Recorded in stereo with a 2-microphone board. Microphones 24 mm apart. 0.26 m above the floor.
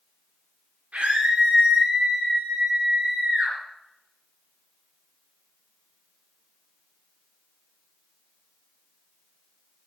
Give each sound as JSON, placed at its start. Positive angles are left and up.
{"t": 0.9, "sound": "a scream", "side_deg": -75, "distance_m": 6.5}